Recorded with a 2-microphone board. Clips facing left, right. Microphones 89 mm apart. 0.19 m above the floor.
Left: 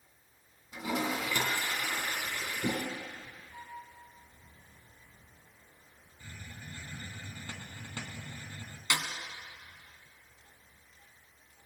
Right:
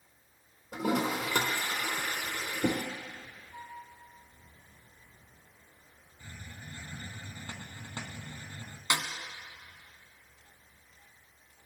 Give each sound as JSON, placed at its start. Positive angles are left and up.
{"t": 0.7, "sound": "a toilet flushing", "side_deg": -65, "distance_m": 3.0}
{"t": 3.5, "sound": "a flute", "side_deg": -30, "distance_m": 1.3}
{"t": 6.2, "sound": "a hiss", "side_deg": -20, "distance_m": 0.9}
{"t": 8.9, "sound": "a snare drum", "side_deg": -25, "distance_m": 1.0}